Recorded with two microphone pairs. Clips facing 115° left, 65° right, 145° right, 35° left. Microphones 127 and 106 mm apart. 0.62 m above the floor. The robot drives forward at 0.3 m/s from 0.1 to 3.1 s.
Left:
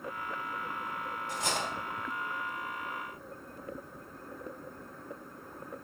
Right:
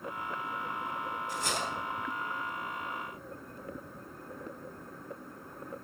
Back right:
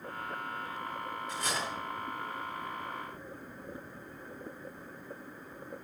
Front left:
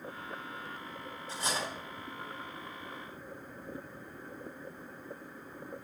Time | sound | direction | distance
1.3 | cutlery clinking | 95° left | 2.5 m